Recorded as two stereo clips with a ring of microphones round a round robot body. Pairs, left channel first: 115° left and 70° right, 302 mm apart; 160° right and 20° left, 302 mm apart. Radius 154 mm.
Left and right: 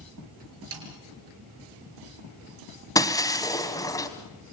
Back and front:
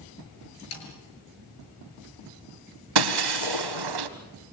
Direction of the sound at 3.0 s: 35° left.